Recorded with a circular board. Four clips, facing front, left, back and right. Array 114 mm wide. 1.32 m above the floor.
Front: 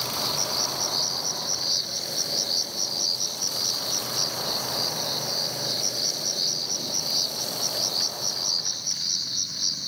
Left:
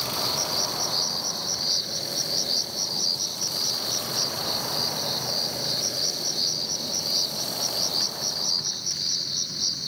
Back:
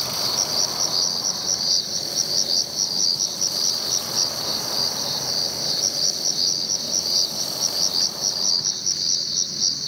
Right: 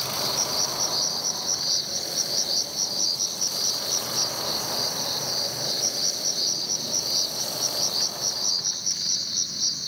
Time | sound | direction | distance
0.0 | an insect | 165° left | ?